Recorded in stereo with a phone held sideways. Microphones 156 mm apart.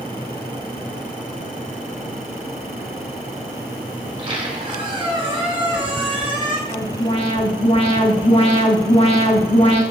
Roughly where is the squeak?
Right.